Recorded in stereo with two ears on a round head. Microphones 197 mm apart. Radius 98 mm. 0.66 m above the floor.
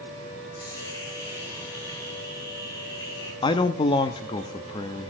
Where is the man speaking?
20° left (ahead or behind), 0.7 m.